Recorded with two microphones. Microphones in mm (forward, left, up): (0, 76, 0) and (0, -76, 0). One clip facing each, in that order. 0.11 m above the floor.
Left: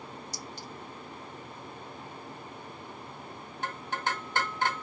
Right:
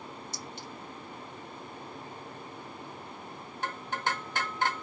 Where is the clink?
35° left (ahead or behind), 1.3 m.